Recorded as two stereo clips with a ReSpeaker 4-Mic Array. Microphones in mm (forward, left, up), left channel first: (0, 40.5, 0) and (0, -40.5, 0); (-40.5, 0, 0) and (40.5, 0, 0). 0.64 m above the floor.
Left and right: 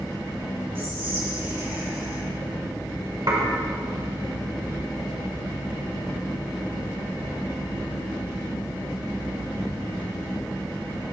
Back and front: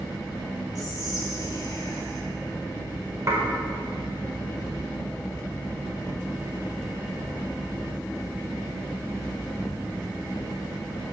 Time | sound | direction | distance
0.8 | whispering | 150° right | 2.5 m
3.3 | dishes clattering | 50° right | 1.5 m